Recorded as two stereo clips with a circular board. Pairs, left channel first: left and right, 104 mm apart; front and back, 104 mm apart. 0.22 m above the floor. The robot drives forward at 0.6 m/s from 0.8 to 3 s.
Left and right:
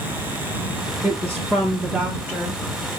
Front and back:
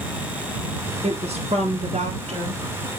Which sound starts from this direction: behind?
A woman speaking, at 1.0 s.